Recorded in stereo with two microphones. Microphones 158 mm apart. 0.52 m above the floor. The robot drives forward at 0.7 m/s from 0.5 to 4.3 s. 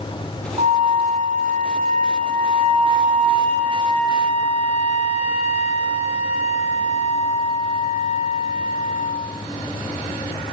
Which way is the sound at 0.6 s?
50° right (ahead or behind).